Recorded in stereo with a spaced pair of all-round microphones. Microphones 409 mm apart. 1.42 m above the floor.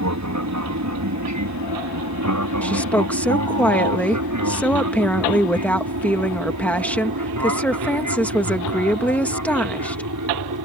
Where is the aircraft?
40° right (ahead or behind); by 10.7 s 45° right (ahead or behind).